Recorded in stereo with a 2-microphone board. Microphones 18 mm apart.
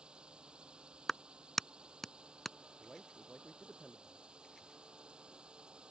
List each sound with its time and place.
0.0 s a drone: 65° right (ahead or behind)
1.1 s a clap: 10° left (ahead or behind)
2.8 s a man speaking: 20° right (ahead or behind)